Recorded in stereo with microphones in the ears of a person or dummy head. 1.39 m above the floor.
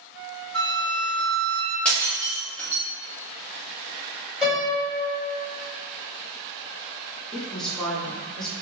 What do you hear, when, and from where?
0.5 s a flute: 5° left (ahead or behind), 1.4 m
1.9 s breaking glass: 5° left (ahead or behind), 1.1 m
4.4 s a piano: 5° right (ahead or behind), 1.6 m
7.3 s a woman speaking: centre (ahead or behind), 0.9 m